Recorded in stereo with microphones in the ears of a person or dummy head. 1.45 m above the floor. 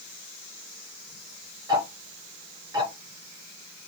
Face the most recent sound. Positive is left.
turn(degrees=-15)  # may be behind; listen again after turning